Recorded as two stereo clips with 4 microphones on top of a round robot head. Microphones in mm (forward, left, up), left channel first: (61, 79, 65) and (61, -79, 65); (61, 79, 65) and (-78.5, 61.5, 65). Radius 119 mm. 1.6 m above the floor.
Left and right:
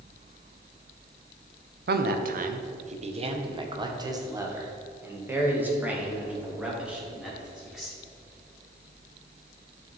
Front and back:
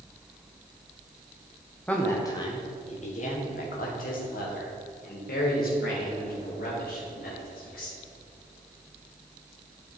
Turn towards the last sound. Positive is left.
turn(degrees=-5)